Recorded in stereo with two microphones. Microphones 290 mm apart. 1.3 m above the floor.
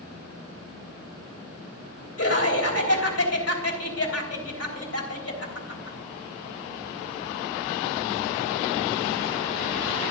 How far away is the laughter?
About 3.5 m.